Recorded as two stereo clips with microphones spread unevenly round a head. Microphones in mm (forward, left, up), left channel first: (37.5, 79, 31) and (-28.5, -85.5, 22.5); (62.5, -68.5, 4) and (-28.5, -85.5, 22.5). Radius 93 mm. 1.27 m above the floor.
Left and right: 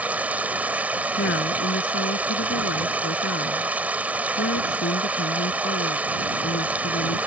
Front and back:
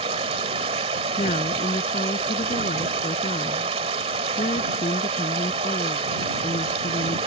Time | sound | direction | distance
0.0 | running water | 165° left | ?
1.2 | a woman speaking | 40° left | ?